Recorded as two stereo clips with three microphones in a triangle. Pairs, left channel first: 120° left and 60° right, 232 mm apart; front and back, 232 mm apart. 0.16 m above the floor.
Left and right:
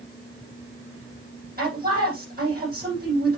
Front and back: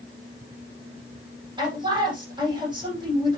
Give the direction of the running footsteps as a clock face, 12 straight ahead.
No running footsteps in this recording.